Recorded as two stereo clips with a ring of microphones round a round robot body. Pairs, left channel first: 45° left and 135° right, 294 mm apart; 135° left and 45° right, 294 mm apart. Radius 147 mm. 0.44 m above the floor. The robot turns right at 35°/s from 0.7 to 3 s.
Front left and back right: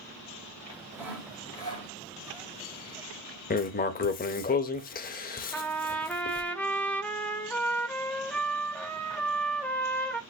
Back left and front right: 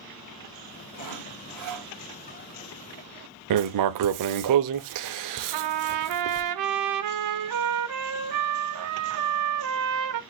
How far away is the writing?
About 0.5 m.